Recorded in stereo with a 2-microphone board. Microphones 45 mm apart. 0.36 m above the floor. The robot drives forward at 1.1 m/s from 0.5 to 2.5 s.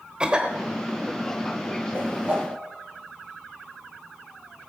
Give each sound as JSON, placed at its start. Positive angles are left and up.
{"t": 0.2, "sound": "a cough", "side_deg": -20, "distance_m": 1.1}
{"t": 1.9, "sound": "a whoosh", "side_deg": -40, "distance_m": 3.5}